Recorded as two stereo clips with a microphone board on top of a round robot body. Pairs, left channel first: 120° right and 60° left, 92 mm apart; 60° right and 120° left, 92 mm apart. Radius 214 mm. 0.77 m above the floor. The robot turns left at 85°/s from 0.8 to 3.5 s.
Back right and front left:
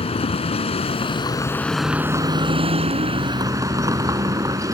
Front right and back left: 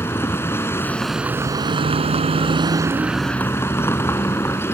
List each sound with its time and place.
0.0 s a vehicle: 125° right; by 4.8 s 5° left